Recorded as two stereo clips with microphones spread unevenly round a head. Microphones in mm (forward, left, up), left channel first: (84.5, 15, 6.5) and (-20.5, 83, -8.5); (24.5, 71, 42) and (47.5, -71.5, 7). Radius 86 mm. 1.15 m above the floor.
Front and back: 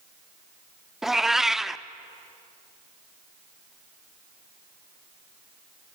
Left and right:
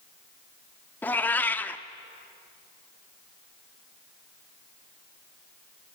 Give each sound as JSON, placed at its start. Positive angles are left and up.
{"t": 1.0, "sound": "a cat meowing", "azimuth_deg": 50, "distance_m": 0.7}